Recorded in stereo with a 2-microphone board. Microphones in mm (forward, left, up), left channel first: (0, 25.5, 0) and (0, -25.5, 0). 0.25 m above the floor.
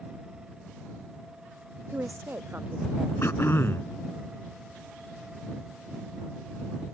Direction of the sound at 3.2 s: 60° left (ahead or behind).